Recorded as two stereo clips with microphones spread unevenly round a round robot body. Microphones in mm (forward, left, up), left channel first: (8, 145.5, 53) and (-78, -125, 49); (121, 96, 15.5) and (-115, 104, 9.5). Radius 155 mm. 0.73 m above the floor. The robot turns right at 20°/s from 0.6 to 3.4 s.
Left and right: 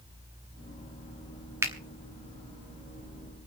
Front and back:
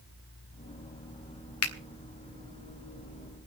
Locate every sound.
1.6 s a finger snap: 30° right, 1.0 m; by 1.7 s 25° right, 1.0 m